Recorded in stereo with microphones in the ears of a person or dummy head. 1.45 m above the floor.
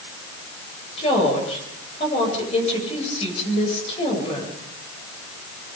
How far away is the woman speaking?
About 7.5 m.